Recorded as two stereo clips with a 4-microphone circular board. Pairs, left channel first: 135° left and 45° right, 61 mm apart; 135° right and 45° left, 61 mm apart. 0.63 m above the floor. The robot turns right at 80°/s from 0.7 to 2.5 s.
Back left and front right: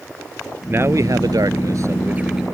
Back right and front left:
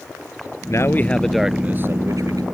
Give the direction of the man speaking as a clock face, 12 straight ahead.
3 o'clock.